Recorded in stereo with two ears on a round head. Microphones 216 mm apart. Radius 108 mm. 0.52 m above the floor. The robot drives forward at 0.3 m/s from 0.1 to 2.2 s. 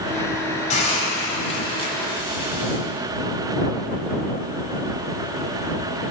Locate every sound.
0.7 s a hiss: 30° left (ahead or behind), 1.5 m; by 2.8 s 25° left (ahead or behind), 1.9 m